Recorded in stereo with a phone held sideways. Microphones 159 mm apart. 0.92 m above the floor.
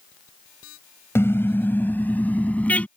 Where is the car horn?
15° left (ahead or behind); by 2.9 s 10° left (ahead or behind).